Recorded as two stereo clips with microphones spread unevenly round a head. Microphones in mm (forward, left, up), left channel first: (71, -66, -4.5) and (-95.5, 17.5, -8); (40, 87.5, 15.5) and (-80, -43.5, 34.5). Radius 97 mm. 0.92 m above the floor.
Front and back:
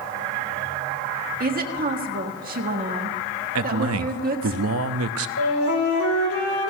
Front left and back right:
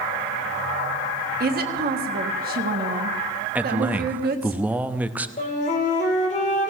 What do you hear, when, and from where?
1.4 s a woman speaking: 170° right, 1.7 m
3.5 s a man speaking: 145° left, 0.8 m
5.4 s a flute: 5° right, 2.5 m